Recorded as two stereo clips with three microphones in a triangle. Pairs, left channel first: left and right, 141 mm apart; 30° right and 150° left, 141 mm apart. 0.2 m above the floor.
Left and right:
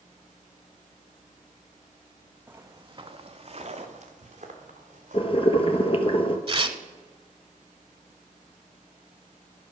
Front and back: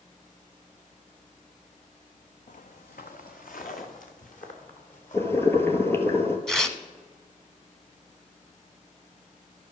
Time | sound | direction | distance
2.5 | footsteps | 15° right | 0.8 m
5.1 | boiling | 40° left | 1.1 m
6.5 | tearing paper | 115° right | 0.8 m